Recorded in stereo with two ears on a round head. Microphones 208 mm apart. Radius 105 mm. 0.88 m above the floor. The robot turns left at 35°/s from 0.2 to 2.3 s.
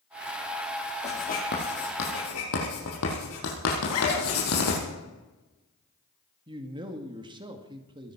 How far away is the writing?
About 6 m.